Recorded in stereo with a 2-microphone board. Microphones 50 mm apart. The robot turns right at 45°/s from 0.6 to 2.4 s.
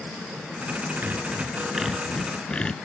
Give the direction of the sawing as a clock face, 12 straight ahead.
1 o'clock.